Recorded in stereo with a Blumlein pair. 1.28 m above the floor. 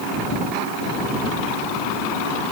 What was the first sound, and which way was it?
Only background noise.